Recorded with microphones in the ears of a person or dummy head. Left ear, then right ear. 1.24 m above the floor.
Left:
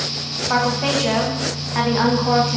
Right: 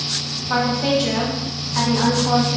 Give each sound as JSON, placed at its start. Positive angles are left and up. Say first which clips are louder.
{"t": 0.5, "sound": "a woman speaking", "louder": "even", "side_deg": 30, "distance_m": 0.5}